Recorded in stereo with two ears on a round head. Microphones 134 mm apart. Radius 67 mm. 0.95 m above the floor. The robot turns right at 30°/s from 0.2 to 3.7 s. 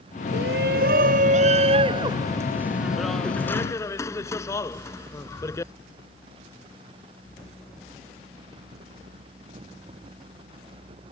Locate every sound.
0.3 s a shout: 80° right; by 5.7 s 20° left (ahead or behind)